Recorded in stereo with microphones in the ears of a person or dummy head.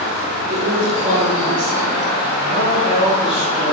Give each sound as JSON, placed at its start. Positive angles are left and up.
{"t": 0.5, "sound": "a woman speaking", "side_deg": -40, "distance_m": 0.7}
{"t": 2.5, "sound": "a man speaking", "side_deg": -35, "distance_m": 0.8}